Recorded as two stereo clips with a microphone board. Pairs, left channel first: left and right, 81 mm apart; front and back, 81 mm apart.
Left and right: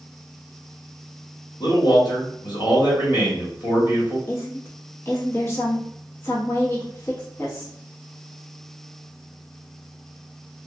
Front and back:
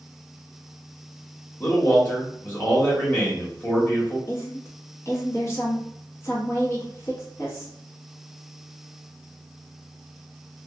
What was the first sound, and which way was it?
A man speaking, 65° left.